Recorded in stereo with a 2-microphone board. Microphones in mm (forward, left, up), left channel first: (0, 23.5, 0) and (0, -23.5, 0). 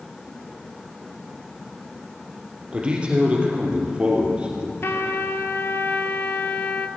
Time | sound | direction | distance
2.7 | a man speaking | 25° right (ahead or behind) | 2.5 m
4.8 | a trumpet | 60° left (ahead or behind) | 0.6 m